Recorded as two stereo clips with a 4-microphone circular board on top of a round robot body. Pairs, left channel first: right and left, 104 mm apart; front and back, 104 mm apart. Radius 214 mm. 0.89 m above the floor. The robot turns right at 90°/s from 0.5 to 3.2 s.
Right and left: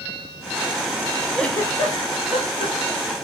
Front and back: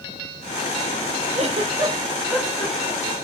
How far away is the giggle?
About 3 m.